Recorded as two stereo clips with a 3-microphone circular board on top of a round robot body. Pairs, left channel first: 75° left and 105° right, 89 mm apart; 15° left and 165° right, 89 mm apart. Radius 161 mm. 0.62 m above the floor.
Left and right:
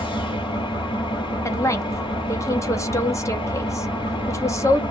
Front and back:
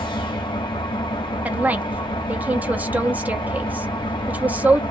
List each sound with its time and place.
0.0 s an engine running: 45° left, 1.5 m
1.4 s a woman speaking: 125° left, 1.1 m